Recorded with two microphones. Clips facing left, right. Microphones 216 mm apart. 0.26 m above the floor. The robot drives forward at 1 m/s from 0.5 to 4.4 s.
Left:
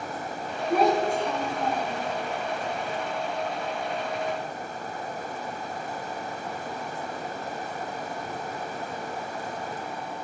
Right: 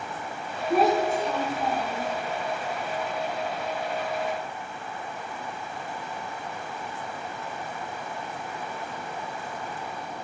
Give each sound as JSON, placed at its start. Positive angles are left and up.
{"t": 0.7, "sound": "a child speaking", "side_deg": -5, "distance_m": 2.0}